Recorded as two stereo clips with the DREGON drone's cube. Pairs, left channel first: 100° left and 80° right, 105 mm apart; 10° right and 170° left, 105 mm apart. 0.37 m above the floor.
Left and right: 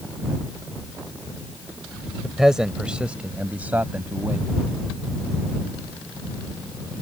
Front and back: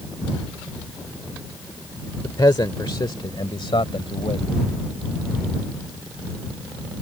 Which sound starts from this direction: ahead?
A man speaking, at 2.2 s.